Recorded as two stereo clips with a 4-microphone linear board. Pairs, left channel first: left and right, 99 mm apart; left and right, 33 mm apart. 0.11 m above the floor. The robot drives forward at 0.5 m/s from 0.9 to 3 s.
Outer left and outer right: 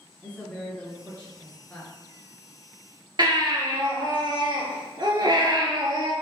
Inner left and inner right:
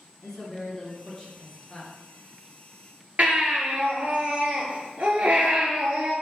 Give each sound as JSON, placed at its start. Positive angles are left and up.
{"t": 0.2, "sound": "a woman speaking", "side_deg": 15, "distance_m": 1.3}
{"t": 3.2, "sound": "a baby crying", "side_deg": -45, "distance_m": 1.0}